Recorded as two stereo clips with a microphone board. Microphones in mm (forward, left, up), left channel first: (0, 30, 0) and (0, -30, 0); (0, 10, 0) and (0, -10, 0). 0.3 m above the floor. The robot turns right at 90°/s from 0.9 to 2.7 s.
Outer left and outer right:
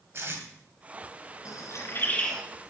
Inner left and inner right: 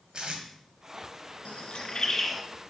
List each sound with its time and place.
0.1 s tape being pulled: 50° right (ahead or behind), 2 m
1.4 s a bird: 80° left, 1.7 m; by 2.4 s 5° left (ahead or behind), 1.7 m